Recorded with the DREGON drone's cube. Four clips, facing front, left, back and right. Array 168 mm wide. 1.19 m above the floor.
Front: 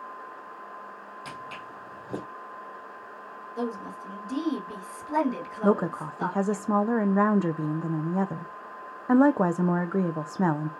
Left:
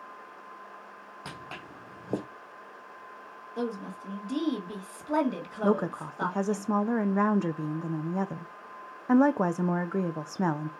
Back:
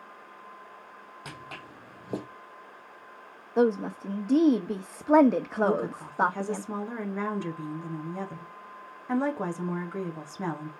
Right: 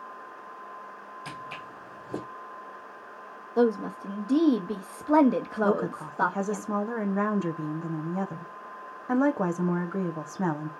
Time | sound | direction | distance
1.2 | footsteps | 120° left | 3 m
3.6 | a woman speaking | 145° right | 1.2 m
5.6 | a woman speaking | 20° left | 0.7 m